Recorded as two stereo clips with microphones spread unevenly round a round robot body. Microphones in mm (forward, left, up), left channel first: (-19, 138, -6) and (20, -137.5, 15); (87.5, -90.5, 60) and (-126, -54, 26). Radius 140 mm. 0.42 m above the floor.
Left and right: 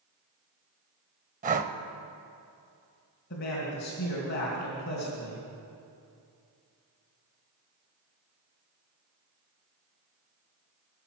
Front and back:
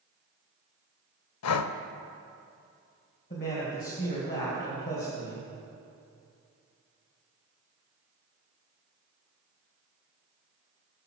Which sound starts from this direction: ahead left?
A man speaking, at 3.3 s.